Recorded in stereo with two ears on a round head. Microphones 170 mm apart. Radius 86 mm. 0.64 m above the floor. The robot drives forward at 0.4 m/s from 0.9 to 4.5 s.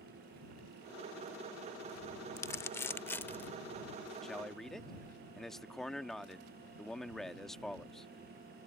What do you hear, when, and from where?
2.4 s crumpling: 15° left (ahead or behind); by 3.5 s 10° left (ahead or behind)
4.2 s a man speaking: centre (ahead or behind)